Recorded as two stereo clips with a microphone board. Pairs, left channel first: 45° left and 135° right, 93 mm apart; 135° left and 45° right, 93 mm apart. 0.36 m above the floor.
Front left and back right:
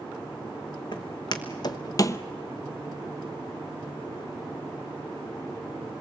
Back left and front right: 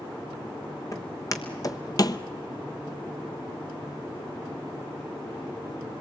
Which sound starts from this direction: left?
Footsteps, at 0.9 s.